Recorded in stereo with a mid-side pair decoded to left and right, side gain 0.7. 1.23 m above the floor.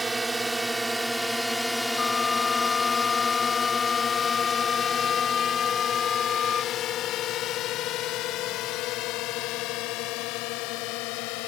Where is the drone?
15° right; by 11.5 s 70° left.